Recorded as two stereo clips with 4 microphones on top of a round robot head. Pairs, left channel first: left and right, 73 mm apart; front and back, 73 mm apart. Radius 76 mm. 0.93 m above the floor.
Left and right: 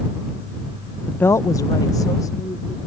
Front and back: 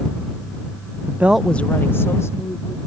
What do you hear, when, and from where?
1.1 s a woman speaking: 160° left; by 2.8 s 45° left